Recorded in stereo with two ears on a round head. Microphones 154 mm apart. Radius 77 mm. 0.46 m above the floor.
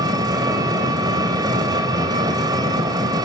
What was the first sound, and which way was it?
An engine running, 25° right (ahead or behind).